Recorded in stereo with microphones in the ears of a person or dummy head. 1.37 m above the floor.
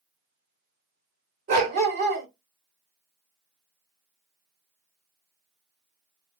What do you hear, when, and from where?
1.5 s a dog barking: 50° right (ahead or behind), 1.4 m